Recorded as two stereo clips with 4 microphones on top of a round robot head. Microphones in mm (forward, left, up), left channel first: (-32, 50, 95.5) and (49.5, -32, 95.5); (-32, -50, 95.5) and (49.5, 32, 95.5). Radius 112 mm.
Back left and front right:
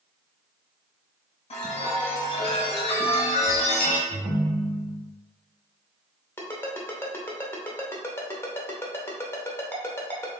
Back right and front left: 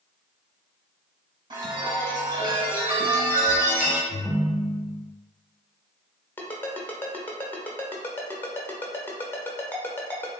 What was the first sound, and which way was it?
A chime, 95° left.